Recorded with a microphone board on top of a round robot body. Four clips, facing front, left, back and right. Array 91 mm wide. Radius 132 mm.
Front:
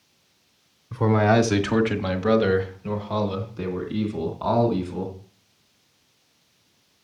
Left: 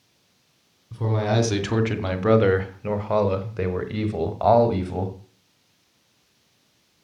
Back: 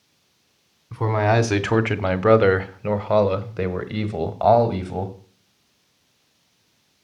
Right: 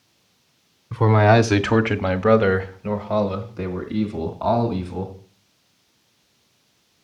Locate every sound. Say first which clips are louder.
0.9 s a man speaking: right 8 dB, front 1 dB; 100° right, 1.1 m; by 5.2 s 145° left, 2 m